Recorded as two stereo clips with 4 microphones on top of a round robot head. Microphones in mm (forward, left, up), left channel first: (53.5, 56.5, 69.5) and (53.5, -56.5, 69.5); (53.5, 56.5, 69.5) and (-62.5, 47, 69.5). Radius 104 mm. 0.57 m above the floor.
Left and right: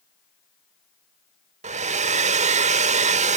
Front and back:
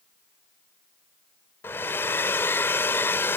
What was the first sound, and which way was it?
A hair dryer, 70° right.